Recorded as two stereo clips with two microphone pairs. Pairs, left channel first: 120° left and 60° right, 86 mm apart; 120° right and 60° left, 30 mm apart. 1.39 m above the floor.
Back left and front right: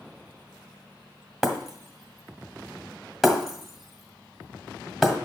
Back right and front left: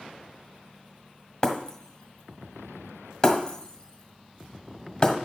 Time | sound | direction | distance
1.4 | breaking glass | 155° right | 1.3 m